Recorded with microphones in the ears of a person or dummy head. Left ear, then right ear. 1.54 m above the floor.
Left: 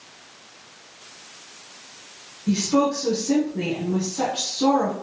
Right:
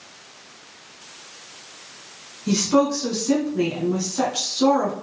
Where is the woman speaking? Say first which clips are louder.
Right 2 dB; 75° right (ahead or behind), 1.0 m.